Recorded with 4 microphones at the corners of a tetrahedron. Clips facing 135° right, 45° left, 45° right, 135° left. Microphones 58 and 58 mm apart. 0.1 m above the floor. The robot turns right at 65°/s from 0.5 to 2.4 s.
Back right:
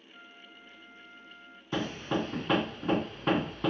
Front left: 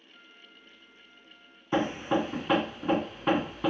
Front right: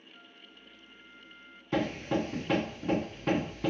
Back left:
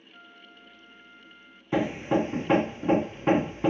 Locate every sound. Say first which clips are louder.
0.1 s a flute: back right 3 dB, back left 8 dB; 150° left, 2.5 m; by 1.6 s 140° right, 2.5 m
1.7 s hammering: front left 5 dB, back left 5 dB; 80° left, 0.5 m; by 3.7 s 125° left, 0.5 m